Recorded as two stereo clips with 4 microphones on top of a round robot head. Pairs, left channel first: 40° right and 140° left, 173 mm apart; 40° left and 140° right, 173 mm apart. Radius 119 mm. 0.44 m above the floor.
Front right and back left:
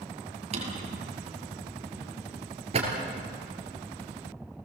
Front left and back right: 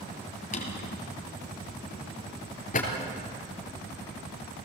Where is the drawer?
85° left, 3 m.